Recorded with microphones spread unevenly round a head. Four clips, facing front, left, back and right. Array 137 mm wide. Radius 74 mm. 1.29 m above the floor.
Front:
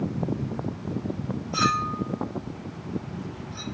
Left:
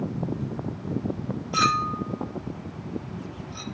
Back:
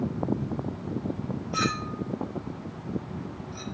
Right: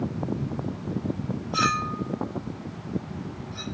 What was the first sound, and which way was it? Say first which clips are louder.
A clink: left 2 dB, front 5 dB; 85° left.